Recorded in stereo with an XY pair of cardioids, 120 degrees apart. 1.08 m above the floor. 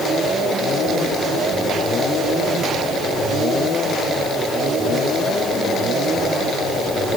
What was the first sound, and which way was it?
Only background noise.